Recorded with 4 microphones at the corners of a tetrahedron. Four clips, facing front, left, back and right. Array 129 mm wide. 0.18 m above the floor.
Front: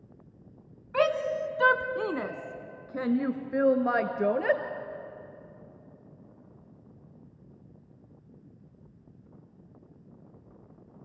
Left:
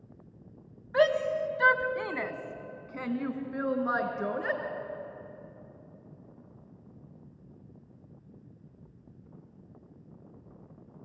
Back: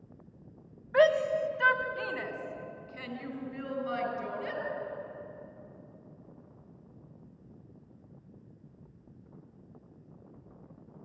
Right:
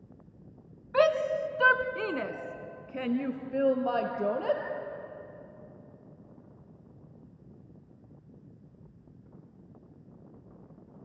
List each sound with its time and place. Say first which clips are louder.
0.9 s a shout: even, back 2 dB; 55° right, 1.2 m; by 4.6 s 10° right, 3 m